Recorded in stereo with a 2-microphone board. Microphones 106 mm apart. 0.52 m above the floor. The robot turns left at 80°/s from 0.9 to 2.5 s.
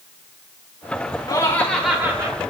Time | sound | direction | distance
1.3 | laughter | 45° left | 1.6 m